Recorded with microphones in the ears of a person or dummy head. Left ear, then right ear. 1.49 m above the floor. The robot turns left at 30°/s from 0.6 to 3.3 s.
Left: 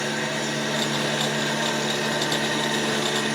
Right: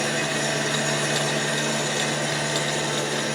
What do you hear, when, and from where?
0.0 s an engine running: 140° right, 3.5 m; by 3.4 s 140° left, 3.5 m